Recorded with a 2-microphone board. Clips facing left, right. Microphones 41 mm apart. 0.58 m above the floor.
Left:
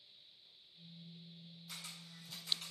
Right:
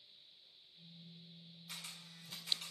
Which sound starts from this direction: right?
A camera shutter, at 1.7 s.